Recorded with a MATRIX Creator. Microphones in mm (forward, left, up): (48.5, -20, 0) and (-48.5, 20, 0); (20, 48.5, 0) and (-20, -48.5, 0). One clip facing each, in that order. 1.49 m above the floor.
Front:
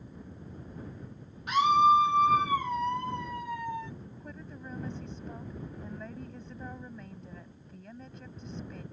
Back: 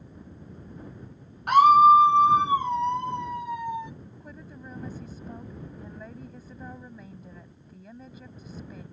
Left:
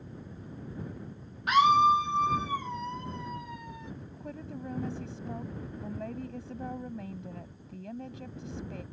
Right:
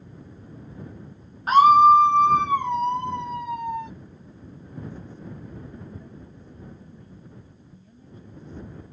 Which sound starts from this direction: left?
A woman speaking, at 4.0 s.